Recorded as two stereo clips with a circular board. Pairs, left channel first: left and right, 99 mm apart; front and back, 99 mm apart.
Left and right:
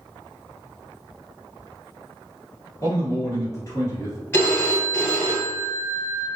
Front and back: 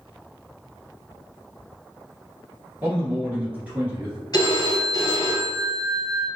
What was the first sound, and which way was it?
A man speaking, 115° left.